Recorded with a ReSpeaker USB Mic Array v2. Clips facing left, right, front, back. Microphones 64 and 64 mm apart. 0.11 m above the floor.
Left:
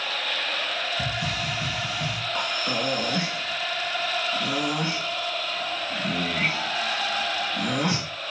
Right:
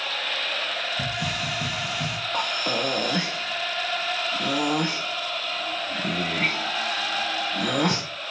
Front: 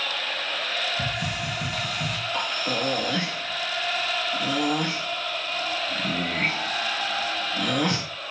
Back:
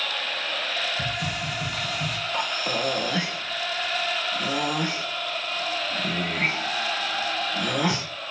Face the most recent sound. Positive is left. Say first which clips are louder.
# right 2 dB, back 1 dB
turn(degrees=-105)